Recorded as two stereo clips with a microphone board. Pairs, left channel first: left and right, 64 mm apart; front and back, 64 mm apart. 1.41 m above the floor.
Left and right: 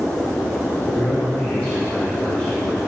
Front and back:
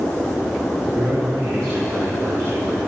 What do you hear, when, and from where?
0.8 s a man speaking: 165° left, 3.5 m